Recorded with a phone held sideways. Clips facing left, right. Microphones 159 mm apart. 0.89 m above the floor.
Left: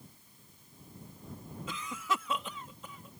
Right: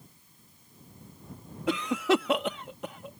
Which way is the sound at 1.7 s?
70° right (ahead or behind).